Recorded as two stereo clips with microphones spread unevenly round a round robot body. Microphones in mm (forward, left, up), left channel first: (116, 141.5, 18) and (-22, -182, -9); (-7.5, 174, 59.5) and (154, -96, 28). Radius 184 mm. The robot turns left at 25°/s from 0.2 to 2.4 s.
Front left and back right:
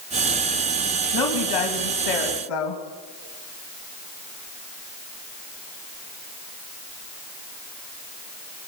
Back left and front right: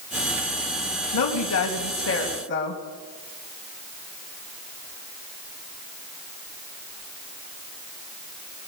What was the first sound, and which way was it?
A woman speaking, 100° left.